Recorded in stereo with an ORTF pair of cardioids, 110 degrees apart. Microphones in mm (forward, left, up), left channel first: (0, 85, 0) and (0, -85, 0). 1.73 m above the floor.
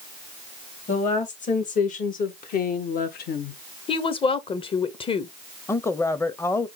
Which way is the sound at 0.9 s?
45° left.